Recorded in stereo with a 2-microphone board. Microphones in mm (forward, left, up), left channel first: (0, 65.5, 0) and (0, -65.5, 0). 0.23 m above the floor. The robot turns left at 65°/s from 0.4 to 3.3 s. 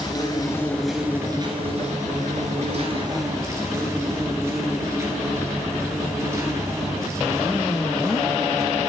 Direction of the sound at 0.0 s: 30° left.